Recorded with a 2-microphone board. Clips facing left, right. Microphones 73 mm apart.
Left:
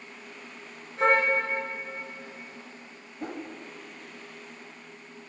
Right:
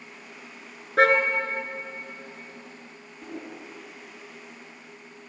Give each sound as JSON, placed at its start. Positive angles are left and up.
{"t": 1.0, "sound": "a car horn", "side_deg": -85, "distance_m": 3.5}
{"t": 3.2, "sound": "a whoosh", "side_deg": 65, "distance_m": 4.5}